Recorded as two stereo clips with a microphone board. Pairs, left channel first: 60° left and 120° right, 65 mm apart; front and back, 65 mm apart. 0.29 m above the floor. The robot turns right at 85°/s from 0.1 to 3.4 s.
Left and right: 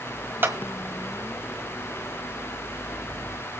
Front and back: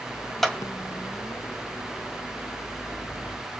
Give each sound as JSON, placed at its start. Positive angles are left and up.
{"t": 0.4, "sound": "a clap", "azimuth_deg": -85, "distance_m": 1.6}